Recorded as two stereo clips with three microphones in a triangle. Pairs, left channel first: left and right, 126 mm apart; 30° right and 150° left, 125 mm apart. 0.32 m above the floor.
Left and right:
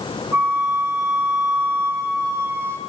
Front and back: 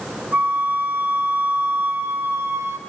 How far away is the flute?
About 0.7 m.